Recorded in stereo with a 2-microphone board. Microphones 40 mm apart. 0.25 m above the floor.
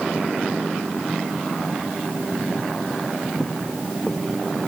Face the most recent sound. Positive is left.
No sound to turn to.